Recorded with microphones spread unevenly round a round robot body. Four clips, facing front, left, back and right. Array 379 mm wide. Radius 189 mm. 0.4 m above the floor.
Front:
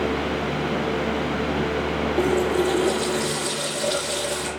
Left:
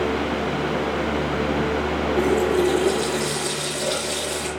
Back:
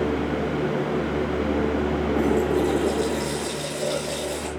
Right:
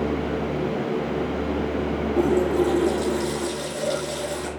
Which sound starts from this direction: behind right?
A running tap, at 2.2 s.